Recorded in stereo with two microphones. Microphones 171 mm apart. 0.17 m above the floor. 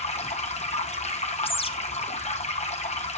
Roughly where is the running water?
Left.